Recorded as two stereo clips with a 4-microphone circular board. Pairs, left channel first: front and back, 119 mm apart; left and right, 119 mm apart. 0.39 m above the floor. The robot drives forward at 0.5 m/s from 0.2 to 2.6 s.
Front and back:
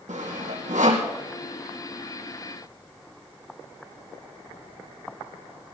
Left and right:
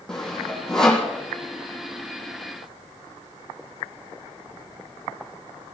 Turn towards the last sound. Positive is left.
turn(degrees=175)